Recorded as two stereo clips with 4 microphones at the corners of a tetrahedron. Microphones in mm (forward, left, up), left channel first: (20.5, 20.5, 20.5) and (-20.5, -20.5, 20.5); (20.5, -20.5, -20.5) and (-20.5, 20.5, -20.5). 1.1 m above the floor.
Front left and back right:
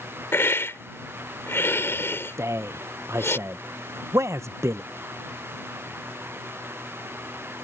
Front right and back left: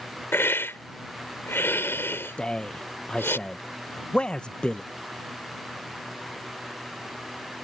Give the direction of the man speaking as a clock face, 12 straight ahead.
4 o'clock.